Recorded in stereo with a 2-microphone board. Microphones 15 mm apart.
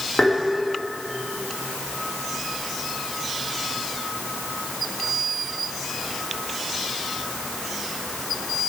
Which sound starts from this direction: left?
Tapping, at 0.2 s.